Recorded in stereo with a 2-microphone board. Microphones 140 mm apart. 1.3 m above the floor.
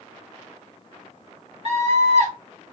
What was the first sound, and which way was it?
A scream, 55° right (ahead or behind).